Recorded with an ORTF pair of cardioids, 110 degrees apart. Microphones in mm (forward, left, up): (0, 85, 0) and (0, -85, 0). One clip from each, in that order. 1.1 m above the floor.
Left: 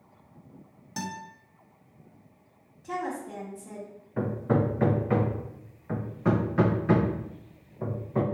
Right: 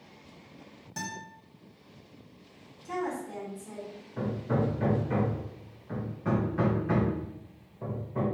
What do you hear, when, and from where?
1.0 s a guitar: 15° left, 1.4 m
2.8 s a woman speaking: 25° left, 1.3 m
4.2 s hammering: 35° left, 0.6 m